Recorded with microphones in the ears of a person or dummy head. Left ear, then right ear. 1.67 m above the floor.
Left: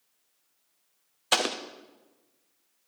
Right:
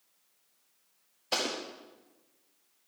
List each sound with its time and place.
1.3 s an explosion: 45° left (ahead or behind), 0.7 m